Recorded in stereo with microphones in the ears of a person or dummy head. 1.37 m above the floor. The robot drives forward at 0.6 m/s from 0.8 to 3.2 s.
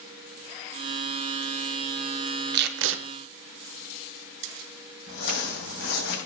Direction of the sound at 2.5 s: 55° right (ahead or behind).